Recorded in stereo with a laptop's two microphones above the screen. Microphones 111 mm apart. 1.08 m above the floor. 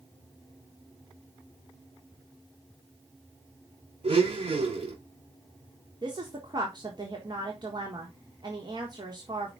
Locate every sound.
4.0 s a blender: 55° right (ahead or behind), 4 m
6.0 s a woman speaking: 40° right (ahead or behind), 1.5 m